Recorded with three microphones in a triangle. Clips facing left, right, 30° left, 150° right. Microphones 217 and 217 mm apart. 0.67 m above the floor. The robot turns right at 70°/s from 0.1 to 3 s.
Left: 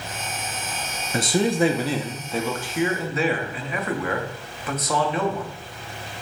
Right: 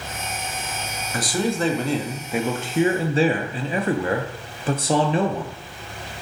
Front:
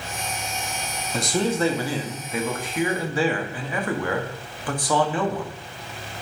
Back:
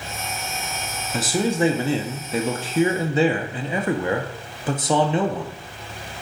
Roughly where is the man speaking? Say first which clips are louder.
Left 3 dB, back 1 dB; behind left.